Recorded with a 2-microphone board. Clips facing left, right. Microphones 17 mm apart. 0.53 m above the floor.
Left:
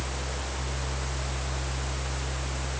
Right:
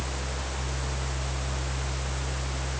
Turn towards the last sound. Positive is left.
No sound to turn to.